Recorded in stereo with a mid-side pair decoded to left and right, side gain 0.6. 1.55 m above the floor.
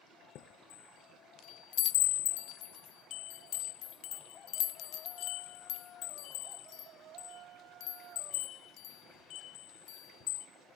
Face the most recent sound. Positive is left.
turn(degrees=65)